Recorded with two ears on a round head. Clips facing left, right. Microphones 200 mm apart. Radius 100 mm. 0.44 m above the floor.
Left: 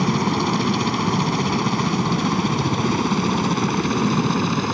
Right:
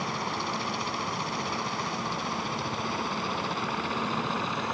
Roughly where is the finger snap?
I don't hear a finger snap.